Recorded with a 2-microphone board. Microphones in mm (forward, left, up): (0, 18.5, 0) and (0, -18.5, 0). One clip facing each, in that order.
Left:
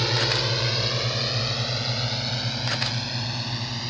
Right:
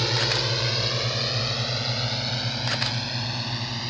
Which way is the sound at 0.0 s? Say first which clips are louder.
Left 1 dB; 5° left (ahead or behind).